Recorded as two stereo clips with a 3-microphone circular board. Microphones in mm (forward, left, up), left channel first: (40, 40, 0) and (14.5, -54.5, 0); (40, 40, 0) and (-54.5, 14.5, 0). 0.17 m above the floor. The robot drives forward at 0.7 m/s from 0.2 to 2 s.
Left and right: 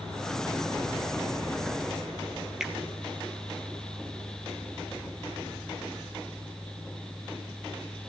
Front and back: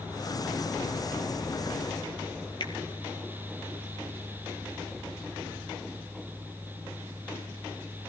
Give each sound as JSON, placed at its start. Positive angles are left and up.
{"t": 2.6, "sound": "a finger snap", "azimuth_deg": -20, "distance_m": 2.5}